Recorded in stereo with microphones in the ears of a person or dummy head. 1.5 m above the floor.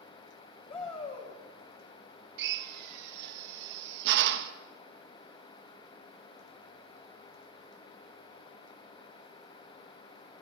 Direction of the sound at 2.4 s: 65° right (ahead or behind).